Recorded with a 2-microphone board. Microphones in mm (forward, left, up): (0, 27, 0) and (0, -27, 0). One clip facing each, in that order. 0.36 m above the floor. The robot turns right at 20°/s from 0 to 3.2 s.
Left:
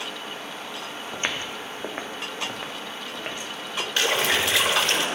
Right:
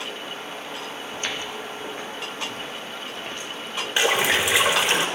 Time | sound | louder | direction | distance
1.1 | footsteps | left 2 dB | 25° left (ahead or behind) | 1.4 m
4.0 | a splash | right 2 dB | 20° right (ahead or behind) | 1.6 m